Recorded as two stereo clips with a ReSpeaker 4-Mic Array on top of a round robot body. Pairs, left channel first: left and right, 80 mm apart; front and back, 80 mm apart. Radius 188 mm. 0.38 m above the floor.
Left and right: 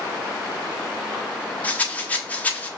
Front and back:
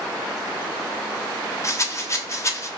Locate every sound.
1.6 s a rattle: 25° left, 1.0 m